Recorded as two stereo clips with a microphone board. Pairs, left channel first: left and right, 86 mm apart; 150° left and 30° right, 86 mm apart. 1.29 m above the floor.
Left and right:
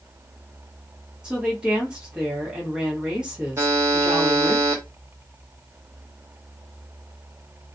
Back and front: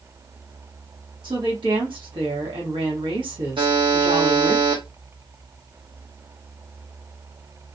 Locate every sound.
1.2 s a woman speaking: 10° right, 1.2 m
3.6 s a buzzer: 35° right, 0.8 m